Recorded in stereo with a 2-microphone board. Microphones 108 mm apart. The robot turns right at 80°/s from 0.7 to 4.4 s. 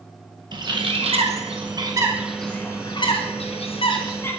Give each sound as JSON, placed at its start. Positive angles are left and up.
{"t": 0.5, "sound": "a bird", "side_deg": -45, "distance_m": 0.9}